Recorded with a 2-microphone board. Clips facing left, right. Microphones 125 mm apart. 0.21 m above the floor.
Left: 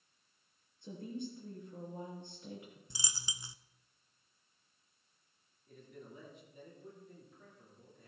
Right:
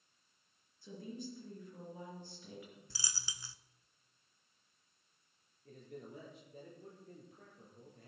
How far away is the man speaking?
About 6.5 m.